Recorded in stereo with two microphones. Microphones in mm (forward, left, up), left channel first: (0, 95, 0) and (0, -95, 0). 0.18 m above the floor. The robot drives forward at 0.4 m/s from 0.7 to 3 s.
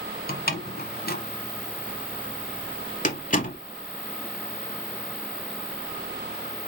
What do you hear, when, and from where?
0.3 s a door slam: 55° left (ahead or behind), 1.2 m; by 3.6 s 45° left (ahead or behind), 1.3 m